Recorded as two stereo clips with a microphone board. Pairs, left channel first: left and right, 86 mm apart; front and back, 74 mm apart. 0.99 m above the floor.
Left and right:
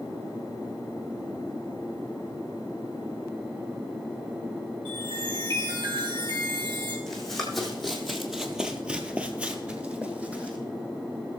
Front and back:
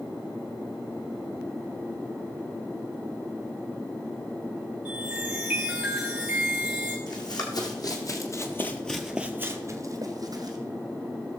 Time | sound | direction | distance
4.8 | a chime | 100° right | 4 m
7.1 | running footsteps | 5° left | 2.5 m